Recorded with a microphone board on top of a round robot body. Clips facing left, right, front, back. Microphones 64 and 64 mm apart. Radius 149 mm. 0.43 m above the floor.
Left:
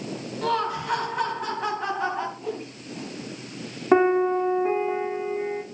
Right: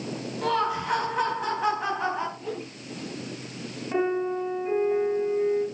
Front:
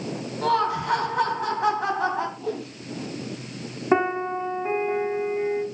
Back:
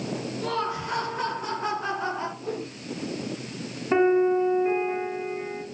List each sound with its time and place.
0.4 s laughter: straight ahead, 4.5 m
2.4 s a whoosh: 10° left, 9.5 m
3.9 s a piano: 55° left, 2 m